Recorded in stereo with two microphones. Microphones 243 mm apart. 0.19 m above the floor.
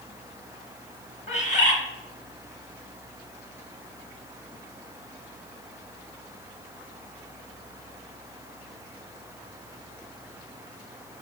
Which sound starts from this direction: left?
A bird, at 1.3 s.